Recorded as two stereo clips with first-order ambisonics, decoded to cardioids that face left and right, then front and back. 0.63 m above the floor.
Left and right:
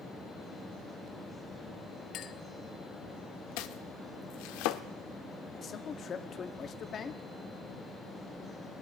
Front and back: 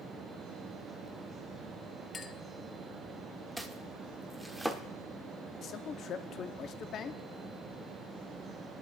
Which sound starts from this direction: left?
Chopping, at 3.6 s.